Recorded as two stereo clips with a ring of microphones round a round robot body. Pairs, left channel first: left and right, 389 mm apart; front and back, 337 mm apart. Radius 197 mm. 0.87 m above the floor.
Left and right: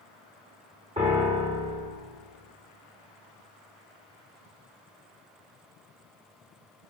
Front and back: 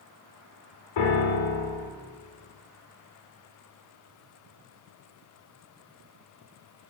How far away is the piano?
About 1.3 m.